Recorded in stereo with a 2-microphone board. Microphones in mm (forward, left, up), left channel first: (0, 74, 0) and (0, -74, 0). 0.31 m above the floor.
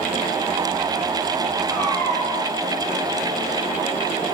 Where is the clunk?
No clunk in this recording.